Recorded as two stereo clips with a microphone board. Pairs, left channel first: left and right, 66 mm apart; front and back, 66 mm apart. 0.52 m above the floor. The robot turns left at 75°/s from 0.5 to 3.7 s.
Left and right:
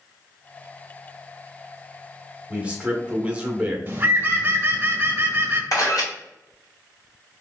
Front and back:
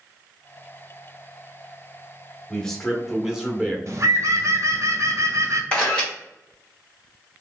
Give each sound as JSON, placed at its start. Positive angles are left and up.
{"t": 2.5, "sound": "a man speaking", "azimuth_deg": -45, "distance_m": 0.9}
{"t": 3.9, "sound": "a bird", "azimuth_deg": -145, "distance_m": 0.7}
{"t": 5.7, "sound": "a camera shutter", "azimuth_deg": 70, "distance_m": 1.5}